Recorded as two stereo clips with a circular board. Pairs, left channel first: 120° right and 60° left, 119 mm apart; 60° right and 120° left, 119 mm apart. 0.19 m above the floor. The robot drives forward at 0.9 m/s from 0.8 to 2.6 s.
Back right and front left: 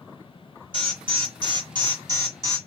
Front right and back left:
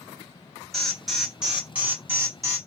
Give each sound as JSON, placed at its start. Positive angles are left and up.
{"t": 0.7, "sound": "an alarm", "azimuth_deg": 30, "distance_m": 2.0}